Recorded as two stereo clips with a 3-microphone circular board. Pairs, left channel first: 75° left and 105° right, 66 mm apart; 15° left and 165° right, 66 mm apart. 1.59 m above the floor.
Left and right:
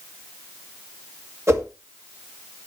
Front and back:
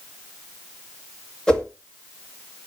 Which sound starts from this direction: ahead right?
A whoosh, at 1.5 s.